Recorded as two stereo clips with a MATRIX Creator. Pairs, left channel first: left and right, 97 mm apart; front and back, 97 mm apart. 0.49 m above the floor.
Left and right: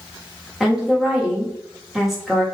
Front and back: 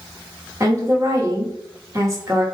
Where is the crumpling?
I don't hear crumpling.